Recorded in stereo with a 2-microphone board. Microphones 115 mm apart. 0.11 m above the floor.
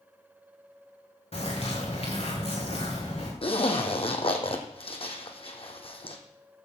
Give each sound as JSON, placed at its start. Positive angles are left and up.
{"t": 1.3, "sound": "a bird", "side_deg": 60, "distance_m": 4.5}
{"t": 3.4, "sound": "a zipper", "side_deg": 55, "distance_m": 1.8}